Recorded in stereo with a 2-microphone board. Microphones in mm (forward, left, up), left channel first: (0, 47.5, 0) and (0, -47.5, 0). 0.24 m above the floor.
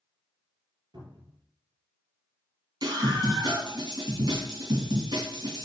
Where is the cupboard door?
50° right (ahead or behind), 3 m.